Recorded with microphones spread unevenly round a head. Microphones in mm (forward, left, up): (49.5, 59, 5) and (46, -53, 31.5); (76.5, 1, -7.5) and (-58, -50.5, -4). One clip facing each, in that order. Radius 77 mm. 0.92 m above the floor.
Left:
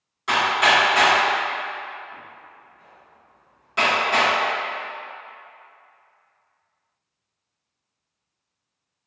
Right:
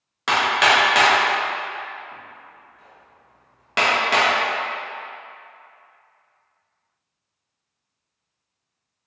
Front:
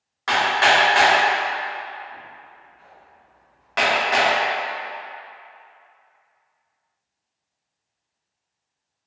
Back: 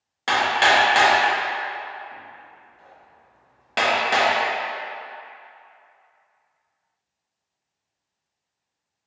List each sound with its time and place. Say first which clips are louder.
0.3 s hammering: right 1 dB, front 1 dB; 100° right, 0.9 m